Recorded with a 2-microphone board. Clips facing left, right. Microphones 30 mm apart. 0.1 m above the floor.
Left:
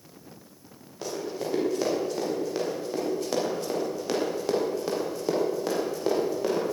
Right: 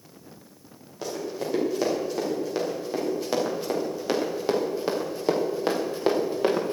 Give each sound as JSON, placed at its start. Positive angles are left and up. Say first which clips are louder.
{"t": 1.0, "sound": "running footsteps", "louder": "right 1 dB", "side_deg": 0, "distance_m": 6.5}